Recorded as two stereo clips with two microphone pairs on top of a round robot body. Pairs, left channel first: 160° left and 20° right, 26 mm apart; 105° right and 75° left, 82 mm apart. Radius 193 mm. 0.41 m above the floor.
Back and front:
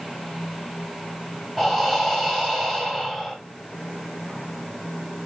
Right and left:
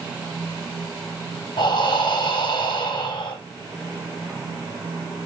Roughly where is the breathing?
Behind right.